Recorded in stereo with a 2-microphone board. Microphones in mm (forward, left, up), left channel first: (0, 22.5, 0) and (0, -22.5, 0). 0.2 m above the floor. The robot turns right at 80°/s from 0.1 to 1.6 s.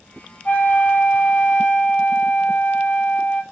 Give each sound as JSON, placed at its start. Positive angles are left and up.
{"t": 0.5, "sound": "a flute", "azimuth_deg": 40, "distance_m": 0.7}